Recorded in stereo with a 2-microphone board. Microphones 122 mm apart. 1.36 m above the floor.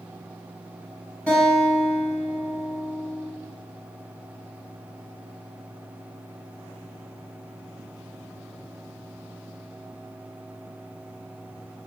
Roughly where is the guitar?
Centre.